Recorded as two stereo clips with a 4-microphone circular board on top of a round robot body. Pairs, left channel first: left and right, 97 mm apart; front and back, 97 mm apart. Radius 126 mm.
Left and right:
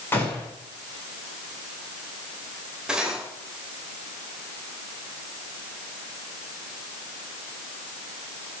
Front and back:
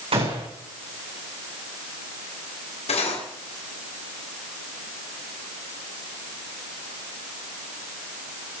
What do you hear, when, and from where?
0.1 s a gunshot: 160° left, 7.5 m
2.9 s cutlery clinking: 5° right, 3.5 m